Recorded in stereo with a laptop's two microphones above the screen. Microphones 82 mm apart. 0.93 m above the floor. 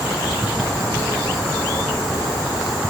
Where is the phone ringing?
No phone ringing in this recording.